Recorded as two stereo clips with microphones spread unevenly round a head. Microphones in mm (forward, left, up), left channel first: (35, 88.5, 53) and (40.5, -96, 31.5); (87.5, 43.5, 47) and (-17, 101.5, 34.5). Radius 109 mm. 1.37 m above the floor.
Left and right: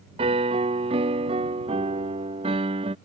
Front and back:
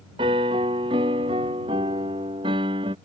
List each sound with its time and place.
0.2 s a piano: 150° right